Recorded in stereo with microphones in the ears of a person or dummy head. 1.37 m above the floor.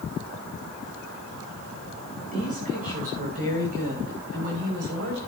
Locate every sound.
2.3 s a woman speaking: 40° right (ahead or behind), 6.5 m; by 5.2 s 65° right (ahead or behind), 5.5 m